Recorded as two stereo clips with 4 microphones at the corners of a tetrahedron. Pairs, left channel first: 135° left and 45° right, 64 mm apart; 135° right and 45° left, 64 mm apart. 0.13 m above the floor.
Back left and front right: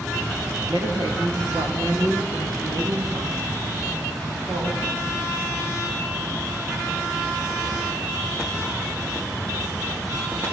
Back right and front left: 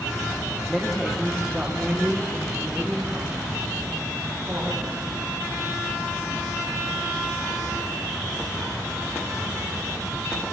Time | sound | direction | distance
0.7 | a woman speaking | 45° right | 7 m